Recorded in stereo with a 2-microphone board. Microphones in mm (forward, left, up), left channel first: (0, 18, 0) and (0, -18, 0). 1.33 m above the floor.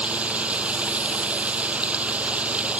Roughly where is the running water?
Right.